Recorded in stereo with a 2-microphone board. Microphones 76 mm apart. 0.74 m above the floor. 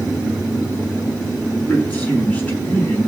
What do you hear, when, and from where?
1.7 s a man speaking: 15° left (ahead or behind), 7.5 m